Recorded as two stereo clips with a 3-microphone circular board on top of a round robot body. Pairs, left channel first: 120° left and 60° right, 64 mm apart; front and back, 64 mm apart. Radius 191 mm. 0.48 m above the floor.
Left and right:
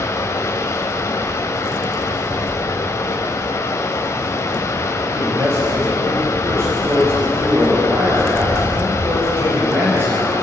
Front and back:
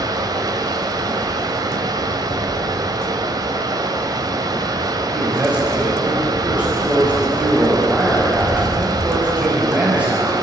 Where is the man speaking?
110° right, 5 m.